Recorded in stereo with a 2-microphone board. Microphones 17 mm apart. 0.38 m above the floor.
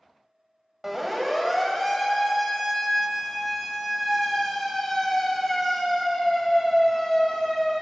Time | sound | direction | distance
0.8 | a siren | 15° right (ahead or behind) | 2.5 m